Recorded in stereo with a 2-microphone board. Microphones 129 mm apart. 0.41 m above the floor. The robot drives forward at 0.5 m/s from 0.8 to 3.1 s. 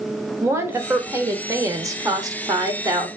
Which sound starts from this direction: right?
A woman speaking, at 0.4 s.